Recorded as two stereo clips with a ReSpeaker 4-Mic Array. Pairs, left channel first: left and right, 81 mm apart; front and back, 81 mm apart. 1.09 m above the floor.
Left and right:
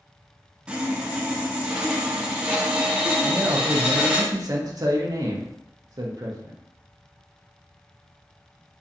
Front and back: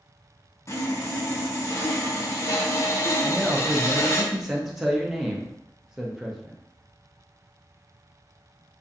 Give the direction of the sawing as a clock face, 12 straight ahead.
1 o'clock.